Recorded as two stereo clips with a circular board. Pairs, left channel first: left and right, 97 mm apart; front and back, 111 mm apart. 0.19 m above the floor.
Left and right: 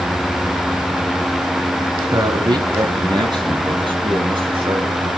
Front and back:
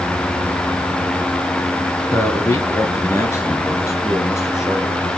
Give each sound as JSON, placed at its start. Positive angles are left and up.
{"t": 2.1, "sound": "a man speaking", "azimuth_deg": -55, "distance_m": 2.0}